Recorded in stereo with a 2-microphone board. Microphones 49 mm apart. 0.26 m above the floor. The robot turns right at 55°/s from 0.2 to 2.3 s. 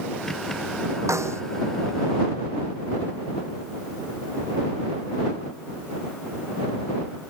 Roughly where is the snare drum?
Right.